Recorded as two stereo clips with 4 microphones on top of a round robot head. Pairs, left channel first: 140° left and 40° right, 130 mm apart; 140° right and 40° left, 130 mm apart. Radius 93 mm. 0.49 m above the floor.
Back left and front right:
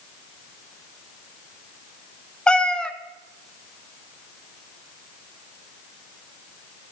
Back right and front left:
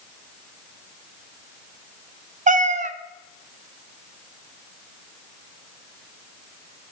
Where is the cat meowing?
60° left, 0.8 m.